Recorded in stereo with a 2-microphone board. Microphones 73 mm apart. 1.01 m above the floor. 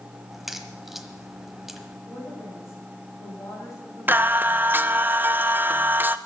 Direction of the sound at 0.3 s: 5° right (ahead or behind).